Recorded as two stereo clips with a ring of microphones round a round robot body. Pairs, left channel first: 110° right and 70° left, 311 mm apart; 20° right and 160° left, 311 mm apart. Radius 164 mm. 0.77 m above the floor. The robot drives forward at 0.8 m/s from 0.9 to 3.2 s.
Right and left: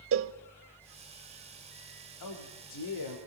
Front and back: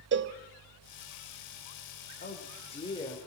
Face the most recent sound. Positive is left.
turn(degrees=-105)